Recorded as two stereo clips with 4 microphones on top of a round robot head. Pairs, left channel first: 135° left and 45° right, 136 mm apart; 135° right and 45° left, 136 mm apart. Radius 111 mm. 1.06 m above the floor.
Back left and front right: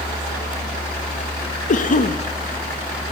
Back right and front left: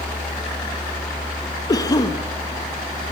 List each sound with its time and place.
1.7 s a cough: 160° left, 1.5 m